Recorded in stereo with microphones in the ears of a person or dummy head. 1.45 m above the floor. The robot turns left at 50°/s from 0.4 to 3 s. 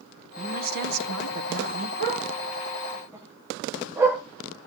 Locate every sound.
0.4 s a woman speaking: 35° right, 1.2 m; by 1.9 s 110° right, 1.2 m
2.0 s a dog barking: 60° right (ahead or behind), 8.5 m; by 4.2 s 10° right (ahead or behind), 8.5 m